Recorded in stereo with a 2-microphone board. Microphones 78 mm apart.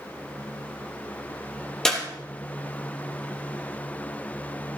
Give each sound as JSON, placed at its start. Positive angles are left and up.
{"t": 1.9, "sound": "a clap", "side_deg": 10, "distance_m": 3.0}